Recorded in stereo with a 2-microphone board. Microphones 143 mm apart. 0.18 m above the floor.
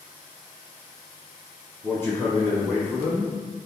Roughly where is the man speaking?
Centre.